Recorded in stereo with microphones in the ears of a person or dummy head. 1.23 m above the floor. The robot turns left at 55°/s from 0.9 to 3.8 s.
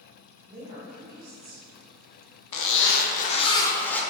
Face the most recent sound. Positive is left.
turn(degrees=10)